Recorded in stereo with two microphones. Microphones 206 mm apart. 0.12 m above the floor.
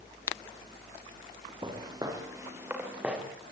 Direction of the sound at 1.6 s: 20° right (ahead or behind).